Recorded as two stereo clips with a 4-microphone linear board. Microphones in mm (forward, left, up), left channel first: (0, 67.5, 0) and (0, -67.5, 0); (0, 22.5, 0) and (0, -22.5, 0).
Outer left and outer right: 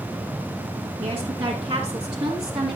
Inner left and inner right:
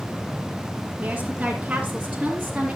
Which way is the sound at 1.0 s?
40° right (ahead or behind).